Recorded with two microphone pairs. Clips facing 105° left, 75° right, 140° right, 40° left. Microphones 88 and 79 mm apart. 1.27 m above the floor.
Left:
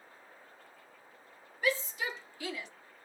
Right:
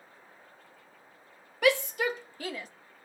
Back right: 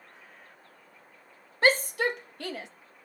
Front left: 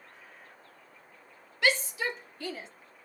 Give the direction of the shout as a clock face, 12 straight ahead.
3 o'clock.